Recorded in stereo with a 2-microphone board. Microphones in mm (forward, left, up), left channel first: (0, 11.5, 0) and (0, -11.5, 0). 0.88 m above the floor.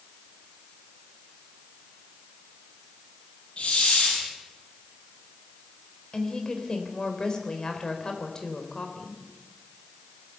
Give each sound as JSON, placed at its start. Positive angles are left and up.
{"t": 3.6, "sound": "a hiss", "side_deg": 55, "distance_m": 8.5}
{"t": 6.1, "sound": "a woman speaking", "side_deg": 25, "distance_m": 4.0}